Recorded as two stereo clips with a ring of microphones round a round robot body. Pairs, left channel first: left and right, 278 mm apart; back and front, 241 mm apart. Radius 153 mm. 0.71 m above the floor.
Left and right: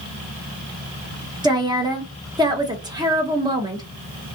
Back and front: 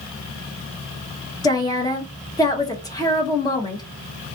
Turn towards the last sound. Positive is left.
turn(degrees=-135)